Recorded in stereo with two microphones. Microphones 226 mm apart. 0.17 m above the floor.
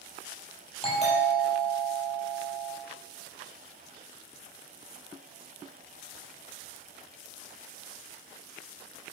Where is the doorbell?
30° left (ahead or behind), 7 m.